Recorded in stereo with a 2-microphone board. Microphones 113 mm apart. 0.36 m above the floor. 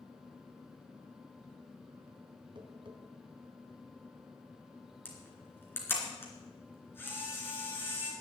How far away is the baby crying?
I don't hear a baby crying.